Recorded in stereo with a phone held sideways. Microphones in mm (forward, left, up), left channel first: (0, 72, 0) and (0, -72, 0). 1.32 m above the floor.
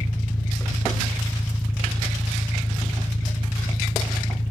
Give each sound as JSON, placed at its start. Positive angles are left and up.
{"t": 0.0, "sound": "an engine running", "side_deg": 15}